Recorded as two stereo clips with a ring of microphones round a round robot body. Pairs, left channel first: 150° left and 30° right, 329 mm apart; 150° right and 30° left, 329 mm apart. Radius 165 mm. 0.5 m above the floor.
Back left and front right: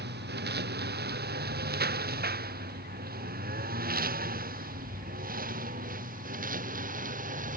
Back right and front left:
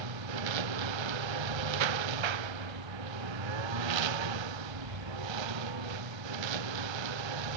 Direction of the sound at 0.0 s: 30° left.